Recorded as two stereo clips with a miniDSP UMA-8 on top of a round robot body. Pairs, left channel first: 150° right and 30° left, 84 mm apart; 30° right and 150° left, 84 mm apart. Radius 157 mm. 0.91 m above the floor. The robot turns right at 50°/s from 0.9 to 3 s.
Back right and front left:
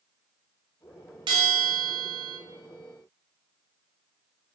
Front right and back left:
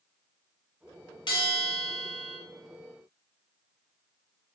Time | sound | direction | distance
1.3 | a bell | straight ahead | 0.7 m